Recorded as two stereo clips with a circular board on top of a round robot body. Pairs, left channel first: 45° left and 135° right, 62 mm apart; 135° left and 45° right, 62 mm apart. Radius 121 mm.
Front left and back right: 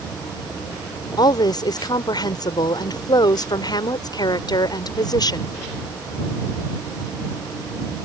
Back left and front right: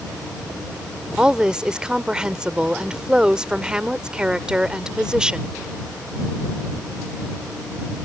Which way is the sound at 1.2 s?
30° left.